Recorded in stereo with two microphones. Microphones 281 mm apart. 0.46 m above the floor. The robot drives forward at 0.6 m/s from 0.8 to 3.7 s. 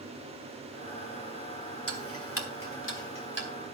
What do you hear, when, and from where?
1.9 s ticking: 55° left (ahead or behind), 2.5 m; by 3.5 s 40° left (ahead or behind), 3 m